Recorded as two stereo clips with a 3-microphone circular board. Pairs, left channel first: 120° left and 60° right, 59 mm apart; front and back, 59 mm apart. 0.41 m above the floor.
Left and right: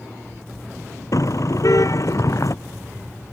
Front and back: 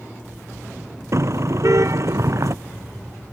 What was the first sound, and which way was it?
A car horn, 145° left.